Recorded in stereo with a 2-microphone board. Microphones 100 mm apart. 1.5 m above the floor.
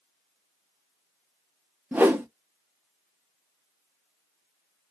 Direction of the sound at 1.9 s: 15° right (ahead or behind).